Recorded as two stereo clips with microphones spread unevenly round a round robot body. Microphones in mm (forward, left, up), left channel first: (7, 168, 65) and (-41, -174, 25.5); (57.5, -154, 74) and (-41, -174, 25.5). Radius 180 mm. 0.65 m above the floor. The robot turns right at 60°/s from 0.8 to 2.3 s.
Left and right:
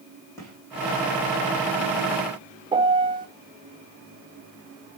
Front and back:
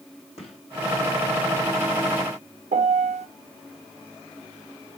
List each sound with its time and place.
0.4 s a gunshot: straight ahead, 3.5 m
2.7 s a piano: 175° right, 0.6 m